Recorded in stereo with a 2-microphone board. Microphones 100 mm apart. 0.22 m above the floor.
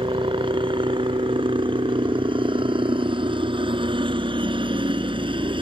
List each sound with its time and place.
0.0 s a helicopter: 55° right (ahead or behind)